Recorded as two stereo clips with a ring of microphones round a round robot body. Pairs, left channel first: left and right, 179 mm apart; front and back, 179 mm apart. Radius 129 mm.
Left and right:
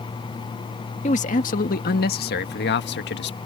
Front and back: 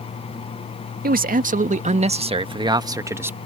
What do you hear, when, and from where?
1.0 s a man speaking: 145° left; by 3.4 s 100° left